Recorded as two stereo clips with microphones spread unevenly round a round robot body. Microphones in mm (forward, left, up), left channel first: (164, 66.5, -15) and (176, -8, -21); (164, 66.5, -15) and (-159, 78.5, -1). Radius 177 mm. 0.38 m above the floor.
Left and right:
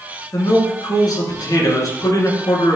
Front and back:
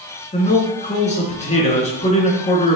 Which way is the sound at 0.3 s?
65° left.